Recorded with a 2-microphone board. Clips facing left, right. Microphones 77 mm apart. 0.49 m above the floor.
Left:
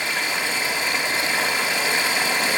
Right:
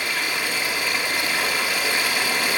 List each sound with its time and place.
0.0 s running water: 20° left (ahead or behind), 3 m